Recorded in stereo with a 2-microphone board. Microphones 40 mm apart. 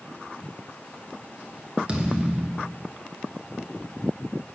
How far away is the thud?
About 1.1 m.